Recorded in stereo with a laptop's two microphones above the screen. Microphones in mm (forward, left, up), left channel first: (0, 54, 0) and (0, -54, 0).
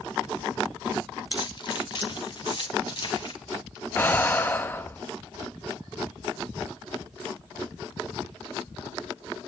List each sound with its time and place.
1.3 s keys jangling: 45° left (ahead or behind), 1.1 m
4.0 s breathing: 20° left (ahead or behind), 1.1 m